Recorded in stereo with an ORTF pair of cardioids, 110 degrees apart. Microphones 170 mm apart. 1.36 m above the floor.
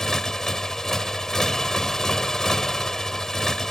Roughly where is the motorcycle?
Ahead.